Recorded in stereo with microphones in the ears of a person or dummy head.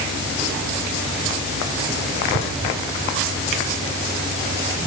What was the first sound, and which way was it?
Only background noise.